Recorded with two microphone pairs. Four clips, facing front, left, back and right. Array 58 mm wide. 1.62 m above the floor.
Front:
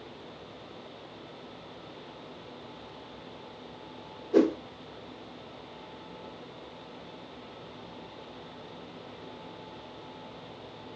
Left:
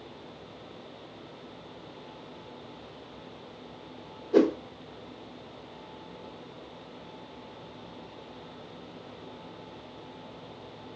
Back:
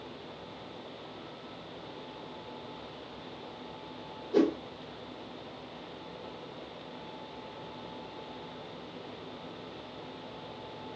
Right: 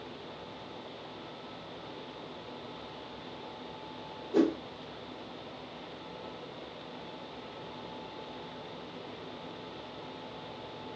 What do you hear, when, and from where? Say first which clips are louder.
4.3 s a whoosh: left 5 dB, front 3 dB; 80° left, 1.6 m